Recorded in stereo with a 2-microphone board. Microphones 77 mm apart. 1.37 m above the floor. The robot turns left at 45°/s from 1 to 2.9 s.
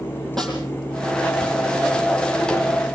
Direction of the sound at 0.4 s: 5° left (ahead or behind).